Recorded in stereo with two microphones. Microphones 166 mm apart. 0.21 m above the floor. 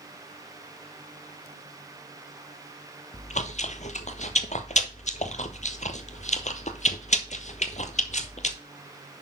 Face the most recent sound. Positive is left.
turn(degrees=45)  # may be behind; listen again after turning